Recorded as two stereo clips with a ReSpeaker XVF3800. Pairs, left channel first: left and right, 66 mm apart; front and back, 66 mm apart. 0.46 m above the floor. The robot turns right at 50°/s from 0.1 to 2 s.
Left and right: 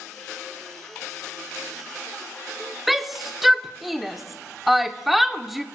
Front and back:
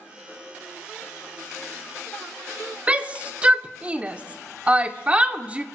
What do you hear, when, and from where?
2.9 s a shout: 175° right, 0.7 m